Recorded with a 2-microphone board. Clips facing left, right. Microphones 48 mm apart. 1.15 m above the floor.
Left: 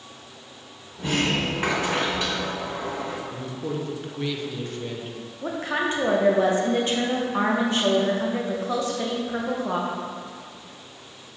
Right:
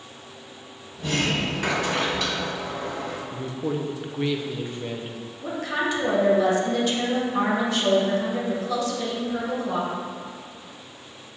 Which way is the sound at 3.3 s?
15° right (ahead or behind).